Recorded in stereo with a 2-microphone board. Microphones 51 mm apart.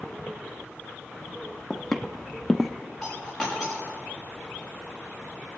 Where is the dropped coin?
Centre (ahead or behind), 6.5 m.